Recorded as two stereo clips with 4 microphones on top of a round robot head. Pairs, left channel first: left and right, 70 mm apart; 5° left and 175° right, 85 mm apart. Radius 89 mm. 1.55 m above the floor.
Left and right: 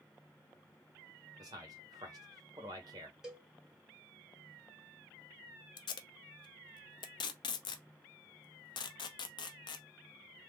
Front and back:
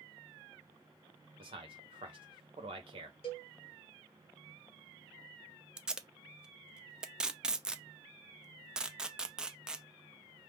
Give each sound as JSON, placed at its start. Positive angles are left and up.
{"t": 1.4, "sound": "a man speaking", "azimuth_deg": -135, "distance_m": 1.2}
{"t": 3.2, "sound": "a cowbell", "azimuth_deg": -10, "distance_m": 1.1}
{"t": 5.8, "sound": "tape being pulled", "azimuth_deg": 105, "distance_m": 0.6}